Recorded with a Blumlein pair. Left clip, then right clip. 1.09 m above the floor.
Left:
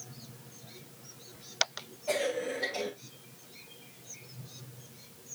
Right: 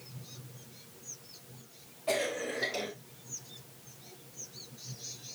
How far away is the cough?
About 4 m.